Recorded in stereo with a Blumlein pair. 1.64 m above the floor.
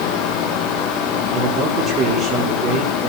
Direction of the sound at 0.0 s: 40° left.